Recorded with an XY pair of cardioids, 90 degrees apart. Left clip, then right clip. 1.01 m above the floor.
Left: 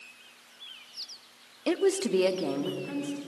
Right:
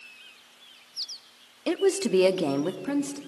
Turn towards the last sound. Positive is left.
turn(degrees=-80)